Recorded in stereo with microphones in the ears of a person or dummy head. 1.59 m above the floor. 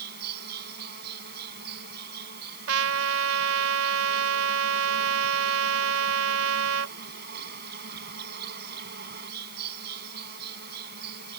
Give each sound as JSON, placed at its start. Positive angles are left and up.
{"t": 0.0, "sound": "an insect", "side_deg": -55}
{"t": 2.7, "sound": "a trumpet", "side_deg": -80}